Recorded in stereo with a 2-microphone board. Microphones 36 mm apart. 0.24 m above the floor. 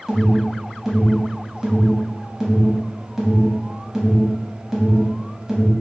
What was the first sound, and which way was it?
An alarm, 10° right (ahead or behind).